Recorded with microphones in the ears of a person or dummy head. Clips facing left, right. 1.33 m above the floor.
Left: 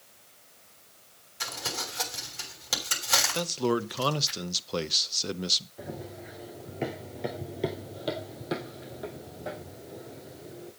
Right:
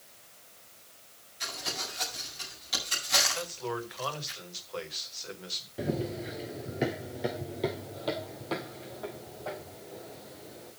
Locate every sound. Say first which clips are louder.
1.4 s crumpling: left 2 dB; 70° left (ahead or behind), 6.5 m
3.3 s a man speaking: left 8 dB; 55° left (ahead or behind), 0.8 m
5.8 s running footsteps: right 8 dB; 35° right (ahead or behind), 1.5 m; by 10.7 s 30° left (ahead or behind), 4.5 m